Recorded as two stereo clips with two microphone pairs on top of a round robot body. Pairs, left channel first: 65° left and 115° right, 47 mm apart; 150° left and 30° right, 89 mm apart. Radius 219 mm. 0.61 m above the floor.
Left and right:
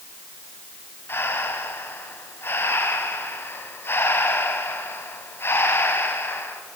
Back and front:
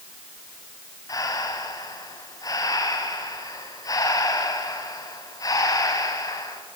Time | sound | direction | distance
1.1 | breathing | 100° left | 2.5 m